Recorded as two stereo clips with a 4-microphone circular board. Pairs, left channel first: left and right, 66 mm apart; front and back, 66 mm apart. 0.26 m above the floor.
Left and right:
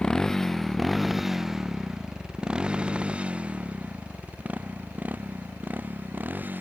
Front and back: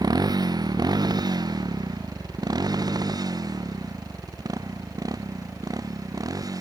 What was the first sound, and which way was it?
A motorcycle, 170° left.